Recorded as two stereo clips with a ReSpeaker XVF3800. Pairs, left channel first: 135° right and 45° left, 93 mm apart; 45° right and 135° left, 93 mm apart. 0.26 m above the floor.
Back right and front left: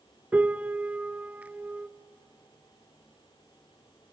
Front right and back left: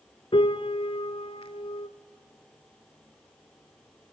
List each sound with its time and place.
0.3 s a piano: 30° right, 0.7 m